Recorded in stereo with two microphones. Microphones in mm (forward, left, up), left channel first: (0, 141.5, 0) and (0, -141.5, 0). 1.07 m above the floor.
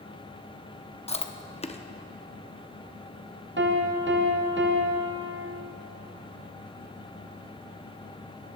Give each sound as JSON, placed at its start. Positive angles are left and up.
{"t": 1.1, "sound": "chewing", "side_deg": 25, "distance_m": 0.5}
{"t": 3.6, "sound": "a piano", "side_deg": -40, "distance_m": 1.0}